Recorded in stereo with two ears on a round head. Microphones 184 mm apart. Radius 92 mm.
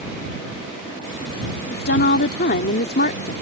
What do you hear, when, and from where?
1.7 s a woman speaking: 50° left (ahead or behind)